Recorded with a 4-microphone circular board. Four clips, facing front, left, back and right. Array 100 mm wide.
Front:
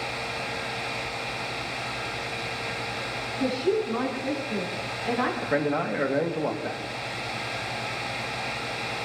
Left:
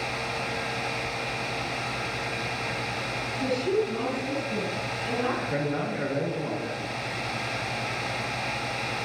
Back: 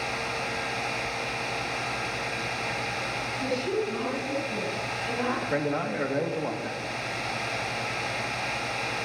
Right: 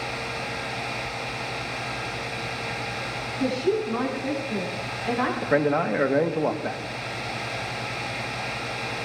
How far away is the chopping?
I don't hear chopping.